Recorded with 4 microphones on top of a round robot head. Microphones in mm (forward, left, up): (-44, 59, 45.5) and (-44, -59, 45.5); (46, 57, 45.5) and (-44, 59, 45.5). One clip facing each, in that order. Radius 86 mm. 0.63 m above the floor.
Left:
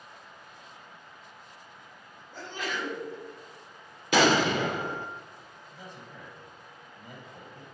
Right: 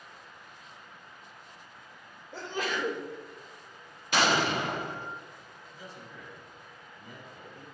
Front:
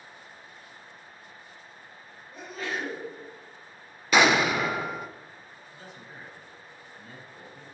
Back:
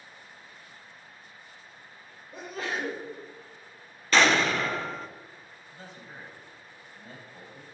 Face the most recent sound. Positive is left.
turn(degrees=125)